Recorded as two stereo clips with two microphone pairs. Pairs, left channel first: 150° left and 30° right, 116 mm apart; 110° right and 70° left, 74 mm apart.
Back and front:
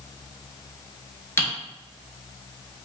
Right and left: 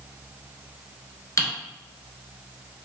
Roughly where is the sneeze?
I don't hear a sneeze.